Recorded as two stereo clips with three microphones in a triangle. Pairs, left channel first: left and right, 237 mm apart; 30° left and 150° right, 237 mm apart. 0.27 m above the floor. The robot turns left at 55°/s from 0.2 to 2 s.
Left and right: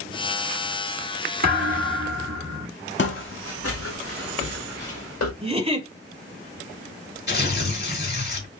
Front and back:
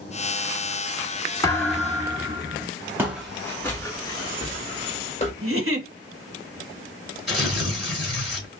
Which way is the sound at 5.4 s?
155° right.